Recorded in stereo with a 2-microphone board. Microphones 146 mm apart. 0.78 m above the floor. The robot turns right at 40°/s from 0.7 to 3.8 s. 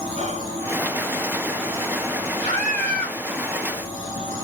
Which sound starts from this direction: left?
A scream, at 2.4 s.